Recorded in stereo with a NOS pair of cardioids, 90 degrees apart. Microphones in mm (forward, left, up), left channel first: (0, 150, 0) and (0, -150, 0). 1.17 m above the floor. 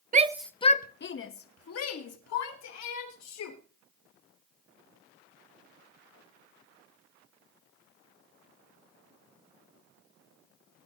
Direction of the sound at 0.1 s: 25° right.